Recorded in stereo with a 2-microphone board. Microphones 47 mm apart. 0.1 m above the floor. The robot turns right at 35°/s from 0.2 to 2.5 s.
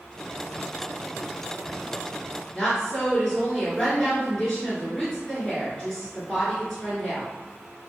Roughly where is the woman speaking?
Centre.